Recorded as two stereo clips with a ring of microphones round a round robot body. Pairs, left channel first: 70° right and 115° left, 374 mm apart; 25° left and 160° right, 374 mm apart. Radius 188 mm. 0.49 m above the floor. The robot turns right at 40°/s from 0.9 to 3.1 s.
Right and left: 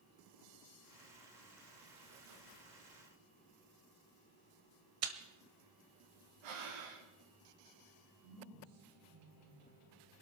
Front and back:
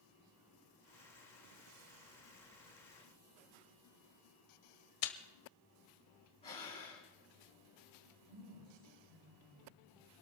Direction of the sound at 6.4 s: 100° left.